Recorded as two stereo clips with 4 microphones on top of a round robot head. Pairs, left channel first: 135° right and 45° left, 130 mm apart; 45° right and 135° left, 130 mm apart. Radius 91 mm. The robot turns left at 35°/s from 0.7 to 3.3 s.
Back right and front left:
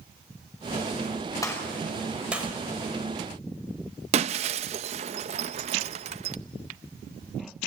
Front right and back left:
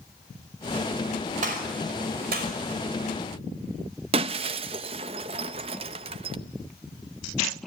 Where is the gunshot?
160° left, 5 m; by 2.5 s 120° left, 5 m.